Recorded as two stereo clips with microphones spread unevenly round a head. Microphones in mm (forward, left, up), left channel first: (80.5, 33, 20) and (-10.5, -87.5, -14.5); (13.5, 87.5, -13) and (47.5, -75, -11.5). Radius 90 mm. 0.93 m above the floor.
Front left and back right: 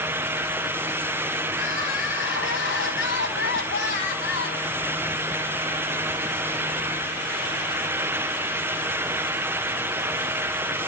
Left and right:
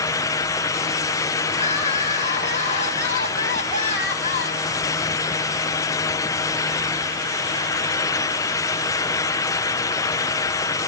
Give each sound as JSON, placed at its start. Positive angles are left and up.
{"t": 1.5, "sound": "crying", "azimuth_deg": 50, "distance_m": 4.0}